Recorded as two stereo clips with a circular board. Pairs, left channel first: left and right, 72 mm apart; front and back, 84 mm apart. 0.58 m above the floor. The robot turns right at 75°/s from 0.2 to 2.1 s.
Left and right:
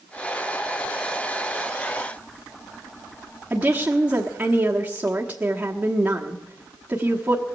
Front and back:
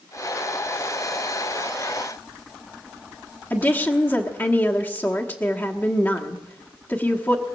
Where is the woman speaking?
35° right, 1.3 m.